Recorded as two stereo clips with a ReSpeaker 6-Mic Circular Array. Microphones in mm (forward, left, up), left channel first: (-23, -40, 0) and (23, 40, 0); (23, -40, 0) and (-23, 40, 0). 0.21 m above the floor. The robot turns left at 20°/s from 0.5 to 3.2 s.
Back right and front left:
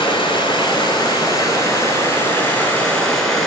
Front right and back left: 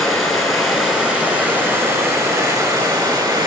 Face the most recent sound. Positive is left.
turn(degrees=155)